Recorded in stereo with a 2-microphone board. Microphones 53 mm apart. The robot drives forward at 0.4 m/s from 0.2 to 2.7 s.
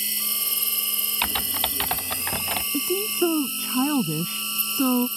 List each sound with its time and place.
0.0 s an insect: centre (ahead or behind)
1.2 s typing on a keyboard: 15° left (ahead or behind)
2.7 s a woman speaking: 15° right (ahead or behind)